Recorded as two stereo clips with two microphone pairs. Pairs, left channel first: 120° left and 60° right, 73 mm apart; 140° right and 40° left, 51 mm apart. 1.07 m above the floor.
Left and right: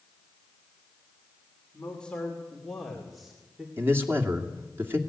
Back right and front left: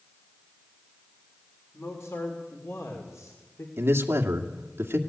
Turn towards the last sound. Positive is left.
turn(degrees=0)